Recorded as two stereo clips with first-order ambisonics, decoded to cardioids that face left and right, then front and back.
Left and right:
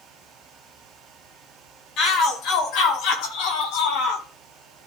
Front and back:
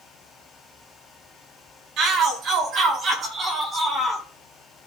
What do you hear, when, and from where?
2.0 s a shout: 135° left, 4.5 m; by 4.2 s 100° left, 4 m